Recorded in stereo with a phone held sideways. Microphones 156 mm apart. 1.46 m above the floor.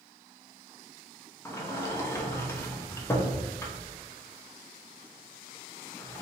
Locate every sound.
1.4 s a sliding door: 15° left (ahead or behind), 0.7 m